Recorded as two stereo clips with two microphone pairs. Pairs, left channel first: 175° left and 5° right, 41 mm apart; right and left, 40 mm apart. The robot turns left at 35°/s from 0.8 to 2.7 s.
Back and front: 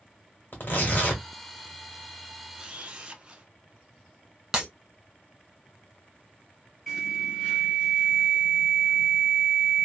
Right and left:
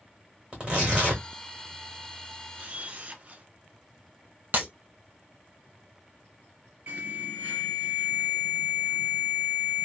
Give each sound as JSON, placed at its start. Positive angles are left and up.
{"t": 0.5, "sound": "tearing paper", "azimuth_deg": 150, "distance_m": 1.8}
{"t": 2.6, "sound": "a camera shutter", "azimuth_deg": 60, "distance_m": 0.7}
{"t": 4.5, "sound": "breaking glass", "azimuth_deg": 75, "distance_m": 2.0}
{"t": 6.9, "sound": "an alarm", "azimuth_deg": 85, "distance_m": 2.0}